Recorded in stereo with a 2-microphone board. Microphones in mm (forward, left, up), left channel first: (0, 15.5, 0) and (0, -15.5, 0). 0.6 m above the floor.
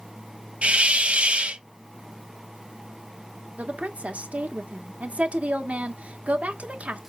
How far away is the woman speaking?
About 1.2 m.